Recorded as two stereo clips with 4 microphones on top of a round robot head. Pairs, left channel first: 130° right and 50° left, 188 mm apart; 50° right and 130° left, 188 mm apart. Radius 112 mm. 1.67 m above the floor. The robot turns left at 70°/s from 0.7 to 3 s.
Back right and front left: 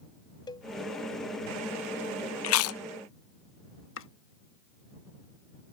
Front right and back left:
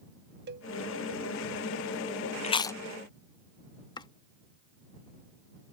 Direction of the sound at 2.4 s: 110° right.